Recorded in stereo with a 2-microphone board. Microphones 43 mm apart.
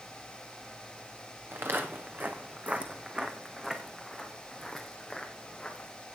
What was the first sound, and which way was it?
Footsteps, 60° right (ahead or behind).